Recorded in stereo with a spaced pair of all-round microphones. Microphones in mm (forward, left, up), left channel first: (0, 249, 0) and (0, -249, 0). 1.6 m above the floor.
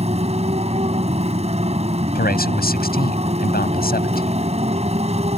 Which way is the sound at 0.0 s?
15° right (ahead or behind).